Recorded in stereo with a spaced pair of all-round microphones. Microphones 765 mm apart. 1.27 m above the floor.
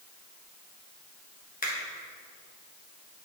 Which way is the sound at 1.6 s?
10° left (ahead or behind).